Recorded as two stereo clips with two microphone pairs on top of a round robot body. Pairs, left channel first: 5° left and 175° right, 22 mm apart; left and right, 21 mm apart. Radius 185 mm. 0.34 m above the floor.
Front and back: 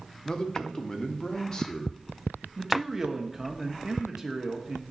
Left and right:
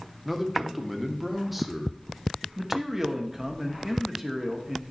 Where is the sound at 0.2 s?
15° right, 1.2 m.